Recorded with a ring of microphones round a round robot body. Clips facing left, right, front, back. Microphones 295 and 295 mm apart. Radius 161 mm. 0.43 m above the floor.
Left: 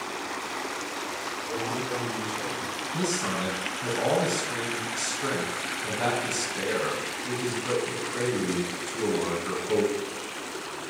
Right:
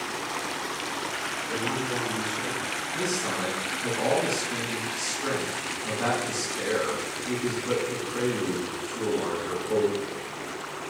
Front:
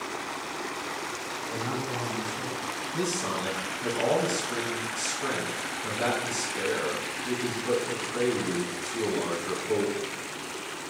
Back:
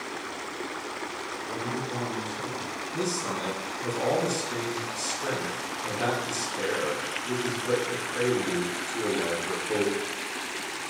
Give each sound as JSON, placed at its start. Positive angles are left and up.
{"t": 1.4, "sound": "a man speaking", "azimuth_deg": -20, "distance_m": 3.5}
{"t": 2.9, "sound": "a man speaking", "azimuth_deg": 60, "distance_m": 4.0}